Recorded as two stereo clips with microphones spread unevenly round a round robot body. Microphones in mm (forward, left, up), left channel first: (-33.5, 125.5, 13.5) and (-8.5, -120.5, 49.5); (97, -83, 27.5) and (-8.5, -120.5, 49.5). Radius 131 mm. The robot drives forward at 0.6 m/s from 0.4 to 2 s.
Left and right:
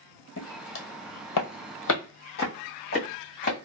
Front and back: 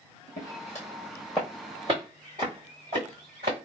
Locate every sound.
0.4 s footsteps: 50° left, 1.2 m; by 3.6 s 155° left, 2 m